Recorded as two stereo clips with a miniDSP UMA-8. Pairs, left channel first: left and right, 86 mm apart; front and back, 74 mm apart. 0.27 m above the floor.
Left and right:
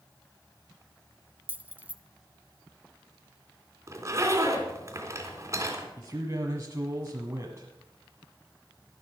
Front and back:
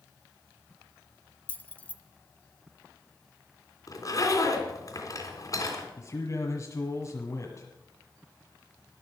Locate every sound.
1.5 s keys jangling: 40° right, 0.8 m
3.9 s a zipper: 35° right, 3 m
6.0 s a man speaking: 35° right, 1.8 m